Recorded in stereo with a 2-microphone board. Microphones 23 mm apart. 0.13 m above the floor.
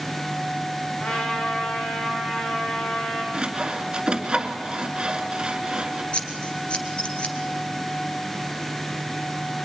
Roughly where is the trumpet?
Left.